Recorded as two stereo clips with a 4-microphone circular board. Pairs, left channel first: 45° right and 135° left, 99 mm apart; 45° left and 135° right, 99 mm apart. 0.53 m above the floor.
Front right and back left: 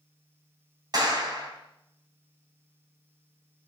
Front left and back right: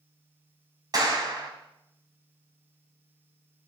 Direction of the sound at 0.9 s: Straight behind.